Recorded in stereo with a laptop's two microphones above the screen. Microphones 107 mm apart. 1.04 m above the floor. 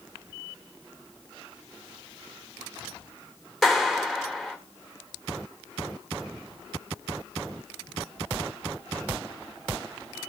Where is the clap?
Centre (ahead or behind), 2.5 m.